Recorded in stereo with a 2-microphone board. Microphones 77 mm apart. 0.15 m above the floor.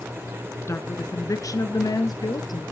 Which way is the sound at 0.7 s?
35° left (ahead or behind).